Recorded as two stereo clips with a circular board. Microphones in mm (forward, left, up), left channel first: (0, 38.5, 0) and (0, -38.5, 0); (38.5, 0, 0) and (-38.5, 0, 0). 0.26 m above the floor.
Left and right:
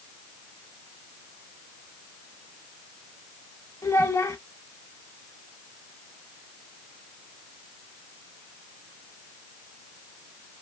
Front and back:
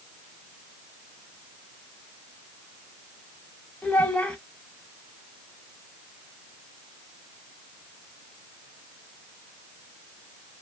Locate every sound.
3.8 s a child speaking: 70° left, 0.8 m